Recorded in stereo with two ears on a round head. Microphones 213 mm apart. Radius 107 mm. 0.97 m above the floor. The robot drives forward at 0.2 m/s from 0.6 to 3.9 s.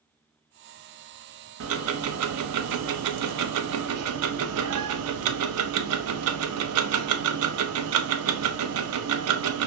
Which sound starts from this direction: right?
Ticking, at 1.6 s.